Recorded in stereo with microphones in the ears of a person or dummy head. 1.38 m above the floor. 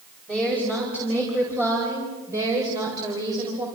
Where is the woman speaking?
5° right (ahead or behind), 5.5 m; by 3.6 s 25° right (ahead or behind), 5 m.